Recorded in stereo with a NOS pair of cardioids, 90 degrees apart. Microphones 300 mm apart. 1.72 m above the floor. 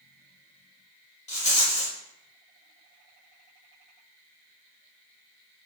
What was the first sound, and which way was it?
A rattle, 20° left.